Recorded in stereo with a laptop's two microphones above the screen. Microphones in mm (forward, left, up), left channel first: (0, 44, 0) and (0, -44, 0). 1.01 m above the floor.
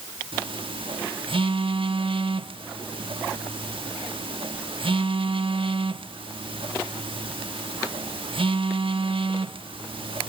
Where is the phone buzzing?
80° right, 1.0 m.